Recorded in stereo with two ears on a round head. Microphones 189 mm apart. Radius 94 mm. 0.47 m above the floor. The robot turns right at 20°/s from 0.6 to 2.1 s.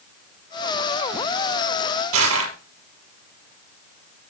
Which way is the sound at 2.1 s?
75° right (ahead or behind).